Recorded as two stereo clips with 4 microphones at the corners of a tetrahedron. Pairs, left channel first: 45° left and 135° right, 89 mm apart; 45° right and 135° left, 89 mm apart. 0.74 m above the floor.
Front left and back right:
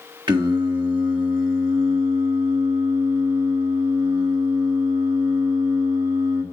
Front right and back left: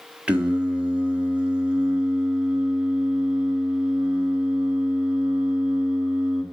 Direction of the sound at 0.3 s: 150° right.